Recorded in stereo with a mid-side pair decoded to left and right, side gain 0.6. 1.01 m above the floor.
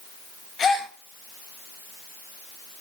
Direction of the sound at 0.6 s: 35° left.